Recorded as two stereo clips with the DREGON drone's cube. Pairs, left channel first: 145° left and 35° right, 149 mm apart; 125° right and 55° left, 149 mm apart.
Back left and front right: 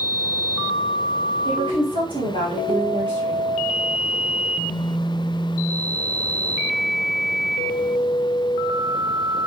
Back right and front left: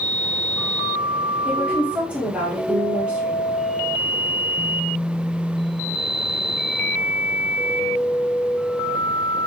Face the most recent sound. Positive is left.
turn(degrees=-20)